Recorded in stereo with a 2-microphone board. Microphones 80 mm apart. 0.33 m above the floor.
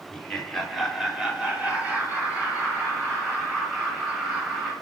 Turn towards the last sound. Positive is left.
turn(degrees=-25)  # may be behind; listen again after turning